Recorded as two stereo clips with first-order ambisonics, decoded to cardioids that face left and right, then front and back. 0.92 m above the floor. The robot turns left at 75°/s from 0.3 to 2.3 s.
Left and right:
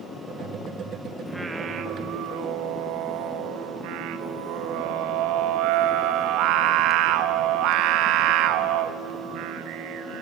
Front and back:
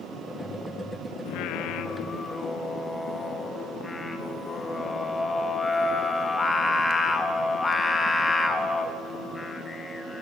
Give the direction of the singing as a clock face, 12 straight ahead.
12 o'clock.